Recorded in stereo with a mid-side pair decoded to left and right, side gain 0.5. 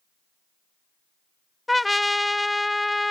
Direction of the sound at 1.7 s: 10° left.